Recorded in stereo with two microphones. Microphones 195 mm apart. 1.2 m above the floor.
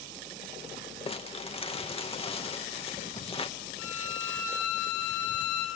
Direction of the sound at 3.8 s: 10° right (ahead or behind).